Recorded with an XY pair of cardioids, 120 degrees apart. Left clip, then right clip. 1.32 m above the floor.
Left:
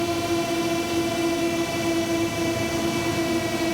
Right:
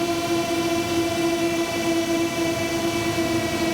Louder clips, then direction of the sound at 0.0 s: Right 1 dB; 10° right.